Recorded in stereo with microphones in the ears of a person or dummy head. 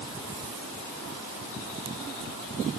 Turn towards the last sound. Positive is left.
No sound to turn to.